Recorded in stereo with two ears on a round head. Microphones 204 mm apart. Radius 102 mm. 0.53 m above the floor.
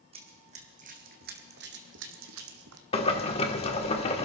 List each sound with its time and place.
0.1 s running footsteps: 25° right (ahead or behind), 2 m; by 2.8 s 70° right (ahead or behind), 1.8 m
2.9 s boiling: 25° left (ahead or behind), 1.4 m